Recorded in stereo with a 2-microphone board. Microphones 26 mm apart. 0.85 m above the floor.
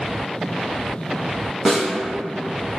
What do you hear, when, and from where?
1.6 s a snare drum: centre (ahead or behind), 0.8 m